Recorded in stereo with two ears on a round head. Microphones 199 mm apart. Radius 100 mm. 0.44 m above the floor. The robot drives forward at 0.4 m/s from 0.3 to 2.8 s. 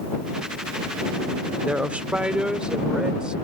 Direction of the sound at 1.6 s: 5° right (ahead or behind).